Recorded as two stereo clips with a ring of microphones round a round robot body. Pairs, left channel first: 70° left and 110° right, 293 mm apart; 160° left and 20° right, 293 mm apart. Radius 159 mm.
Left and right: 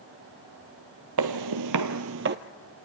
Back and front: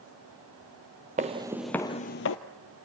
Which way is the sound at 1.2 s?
85° right.